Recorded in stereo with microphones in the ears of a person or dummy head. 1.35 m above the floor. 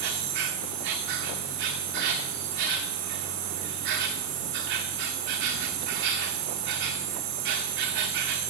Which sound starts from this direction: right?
An insect, at 0.0 s.